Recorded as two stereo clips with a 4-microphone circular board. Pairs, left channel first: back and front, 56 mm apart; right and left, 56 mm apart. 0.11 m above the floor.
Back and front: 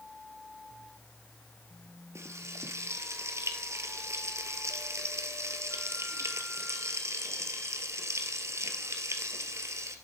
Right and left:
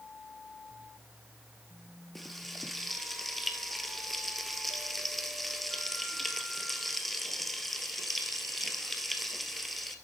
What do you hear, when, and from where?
2.1 s frying: 5° right, 1.8 m